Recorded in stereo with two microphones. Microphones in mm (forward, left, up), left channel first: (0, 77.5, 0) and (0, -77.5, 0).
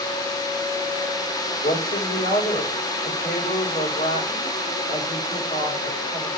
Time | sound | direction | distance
1.6 | a woman speaking | 75° left (ahead or behind) | 5 m